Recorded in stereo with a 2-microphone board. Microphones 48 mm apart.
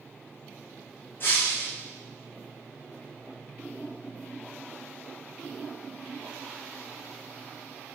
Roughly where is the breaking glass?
Left.